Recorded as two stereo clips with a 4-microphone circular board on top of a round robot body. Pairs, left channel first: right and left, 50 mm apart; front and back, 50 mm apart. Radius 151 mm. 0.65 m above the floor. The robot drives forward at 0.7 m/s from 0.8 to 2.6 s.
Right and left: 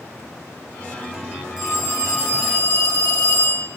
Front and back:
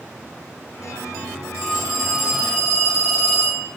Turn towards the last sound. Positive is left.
turn(degrees=-105)